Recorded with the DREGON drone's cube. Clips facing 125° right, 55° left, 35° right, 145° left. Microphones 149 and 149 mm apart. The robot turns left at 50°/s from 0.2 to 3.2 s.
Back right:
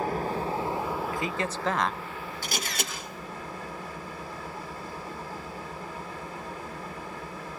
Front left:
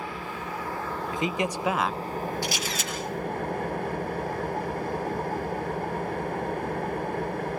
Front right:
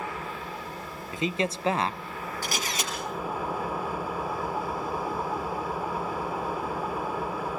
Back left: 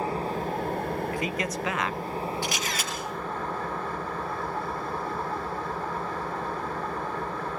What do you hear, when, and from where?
0.0 s an engine running: 165° right, 1.0 m; by 7.6 s 45° left, 1.0 m
1.1 s a man speaking: 10° left, 0.6 m; by 2.3 s 50° right, 0.6 m
2.4 s a camera shutter: 80° right, 6.5 m; by 2.9 s 105° right, 6.5 m